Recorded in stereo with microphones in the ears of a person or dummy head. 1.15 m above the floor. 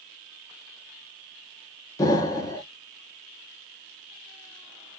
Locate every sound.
2.0 s an explosion: 20° left (ahead or behind), 1.2 m